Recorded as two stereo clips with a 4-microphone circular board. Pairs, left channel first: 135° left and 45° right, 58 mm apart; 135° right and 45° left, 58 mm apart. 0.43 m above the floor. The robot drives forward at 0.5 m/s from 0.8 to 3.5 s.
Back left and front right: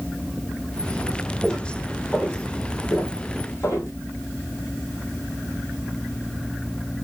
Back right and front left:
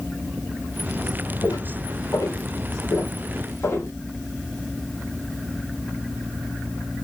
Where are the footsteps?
145° right, 1.5 m; by 3.9 s 170° left, 1.5 m.